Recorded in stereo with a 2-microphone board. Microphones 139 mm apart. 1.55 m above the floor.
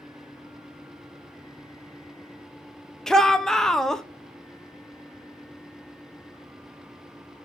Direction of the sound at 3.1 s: 5° left (ahead or behind).